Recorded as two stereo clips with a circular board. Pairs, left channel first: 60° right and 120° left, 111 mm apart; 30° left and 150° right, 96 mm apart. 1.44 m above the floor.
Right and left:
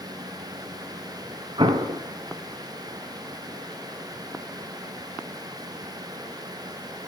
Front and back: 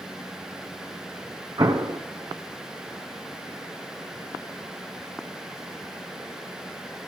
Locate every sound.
1.6 s an explosion: 160° left, 0.9 m